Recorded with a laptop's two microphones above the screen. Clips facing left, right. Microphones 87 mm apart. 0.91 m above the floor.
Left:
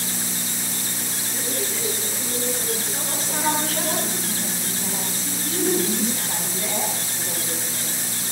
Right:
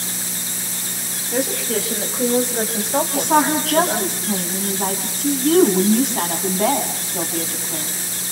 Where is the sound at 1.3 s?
85° right, 5 m; by 4.1 s 60° right (ahead or behind), 5 m.